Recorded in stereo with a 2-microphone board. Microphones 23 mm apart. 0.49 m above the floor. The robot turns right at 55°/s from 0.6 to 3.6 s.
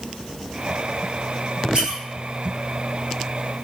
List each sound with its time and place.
1.7 s a squeak: 50° right (ahead or behind), 1.0 m; by 2.0 s 65° right (ahead or behind), 1.0 m